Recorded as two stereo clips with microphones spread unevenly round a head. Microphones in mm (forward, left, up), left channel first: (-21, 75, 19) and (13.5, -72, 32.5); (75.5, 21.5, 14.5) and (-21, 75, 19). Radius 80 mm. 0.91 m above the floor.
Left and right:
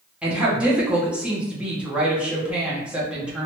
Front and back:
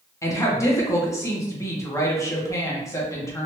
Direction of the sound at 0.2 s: 10° left.